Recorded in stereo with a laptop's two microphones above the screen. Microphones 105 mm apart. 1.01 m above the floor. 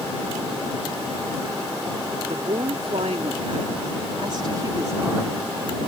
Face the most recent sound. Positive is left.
turn(degrees=-10)  # may be behind; listen again after turning